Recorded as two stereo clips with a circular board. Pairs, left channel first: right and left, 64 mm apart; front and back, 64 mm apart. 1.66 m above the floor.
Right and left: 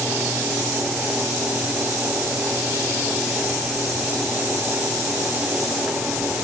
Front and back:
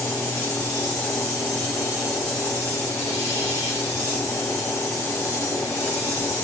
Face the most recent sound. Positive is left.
No sound to turn to.